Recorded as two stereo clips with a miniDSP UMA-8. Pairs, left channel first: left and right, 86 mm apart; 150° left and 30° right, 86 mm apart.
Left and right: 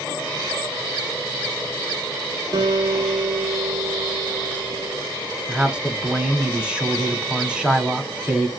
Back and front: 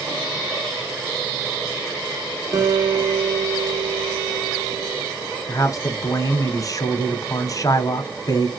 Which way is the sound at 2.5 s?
65° right.